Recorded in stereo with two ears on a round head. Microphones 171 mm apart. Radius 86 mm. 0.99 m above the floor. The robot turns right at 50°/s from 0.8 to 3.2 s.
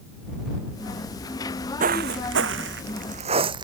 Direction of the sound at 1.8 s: 45° right (ahead or behind).